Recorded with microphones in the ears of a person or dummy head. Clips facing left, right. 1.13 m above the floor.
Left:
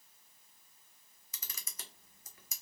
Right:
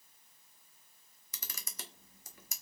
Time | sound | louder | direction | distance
1.3 | a camera shutter | right 4 dB | 55° right (ahead or behind) | 0.5 m